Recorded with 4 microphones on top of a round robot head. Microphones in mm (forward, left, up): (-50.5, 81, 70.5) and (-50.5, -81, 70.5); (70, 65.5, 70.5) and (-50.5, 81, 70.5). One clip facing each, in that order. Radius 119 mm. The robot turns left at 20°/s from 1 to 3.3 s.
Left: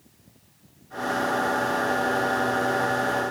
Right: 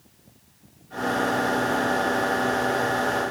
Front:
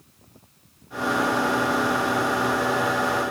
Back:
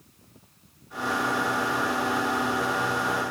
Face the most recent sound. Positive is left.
No sound to turn to.